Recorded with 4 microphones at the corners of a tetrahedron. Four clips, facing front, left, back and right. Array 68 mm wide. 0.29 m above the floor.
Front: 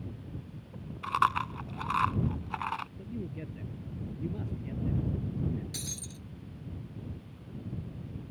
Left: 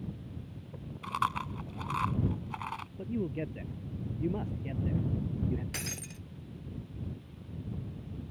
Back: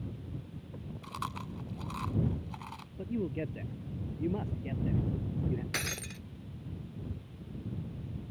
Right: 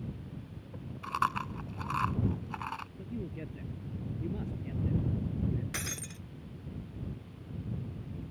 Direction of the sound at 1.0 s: 15° right.